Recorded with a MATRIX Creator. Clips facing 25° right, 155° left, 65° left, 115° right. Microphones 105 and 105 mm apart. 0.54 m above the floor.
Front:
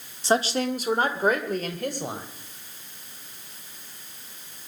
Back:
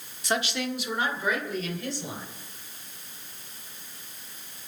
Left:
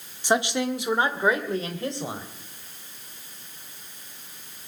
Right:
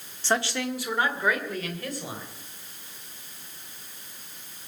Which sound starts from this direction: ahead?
A woman speaking, at 0.2 s.